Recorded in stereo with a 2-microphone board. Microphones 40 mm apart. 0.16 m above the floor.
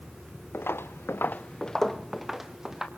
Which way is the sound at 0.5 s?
70° left (ahead or behind).